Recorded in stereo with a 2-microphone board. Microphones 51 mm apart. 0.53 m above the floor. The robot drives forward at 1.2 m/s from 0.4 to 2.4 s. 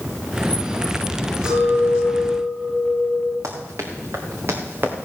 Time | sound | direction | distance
1.4 | a clink | 20° right (ahead or behind) | 6.5 m
3.4 | running footsteps | 70° right (ahead or behind) | 2.5 m